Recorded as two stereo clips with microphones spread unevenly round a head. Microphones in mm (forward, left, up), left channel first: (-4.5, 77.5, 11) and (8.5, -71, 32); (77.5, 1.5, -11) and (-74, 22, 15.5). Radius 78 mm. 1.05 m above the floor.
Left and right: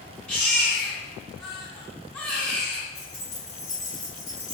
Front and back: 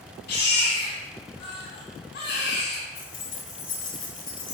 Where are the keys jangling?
20° left, 2.5 m.